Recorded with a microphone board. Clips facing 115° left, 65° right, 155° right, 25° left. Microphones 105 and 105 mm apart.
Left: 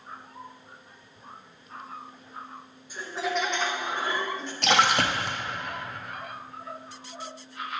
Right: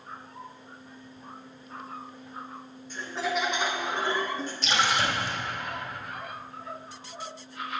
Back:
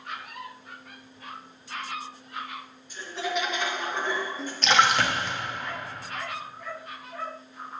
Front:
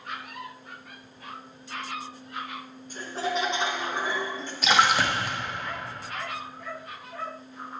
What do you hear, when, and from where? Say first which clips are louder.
2.9 s laughter: even, front 1 dB; 35° left, 0.9 m; by 4.5 s 80° right, 0.8 m
4.6 s a splash: left 4 dB, even; 105° left, 0.7 m